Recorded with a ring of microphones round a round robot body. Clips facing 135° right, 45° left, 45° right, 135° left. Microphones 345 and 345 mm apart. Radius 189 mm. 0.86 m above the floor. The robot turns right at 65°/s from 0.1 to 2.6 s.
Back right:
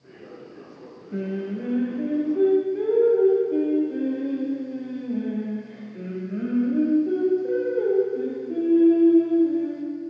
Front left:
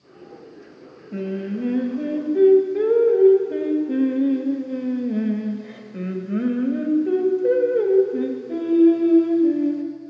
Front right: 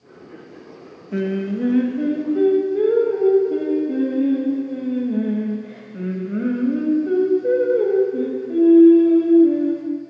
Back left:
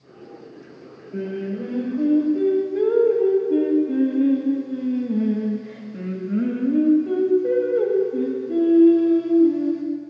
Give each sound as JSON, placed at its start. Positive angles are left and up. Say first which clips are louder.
{"t": 1.1, "sound": "singing", "louder": "front left 2 dB, front right 5 dB", "azimuth_deg": -40, "distance_m": 1.0}